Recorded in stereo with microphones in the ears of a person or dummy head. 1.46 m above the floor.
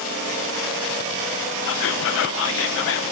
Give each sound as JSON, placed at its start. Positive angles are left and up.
{"t": 1.6, "sound": "whispering", "side_deg": 65, "distance_m": 0.8}